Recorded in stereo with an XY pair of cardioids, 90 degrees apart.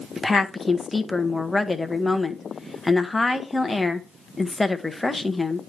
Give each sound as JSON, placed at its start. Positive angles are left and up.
{"t": 0.2, "sound": "a woman speaking", "azimuth_deg": 15, "distance_m": 1.1}